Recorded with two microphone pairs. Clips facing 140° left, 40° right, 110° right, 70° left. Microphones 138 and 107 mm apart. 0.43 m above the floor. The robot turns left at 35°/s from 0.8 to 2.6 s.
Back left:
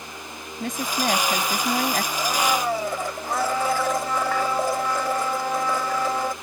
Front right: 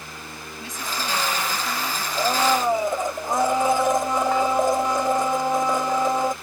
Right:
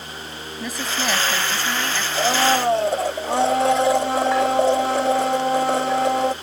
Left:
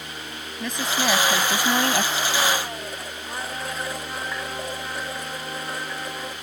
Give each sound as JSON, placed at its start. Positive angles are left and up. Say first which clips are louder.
{"t": 0.6, "sound": "a woman speaking", "louder": "back left 6 dB, left 1 dB", "azimuth_deg": 165}
{"t": 2.1, "sound": "a blender", "louder": "front right 6 dB, right 6 dB", "azimuth_deg": -95}